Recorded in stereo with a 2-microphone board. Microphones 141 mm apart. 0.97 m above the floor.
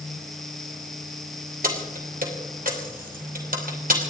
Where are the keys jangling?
85° right, 3 m.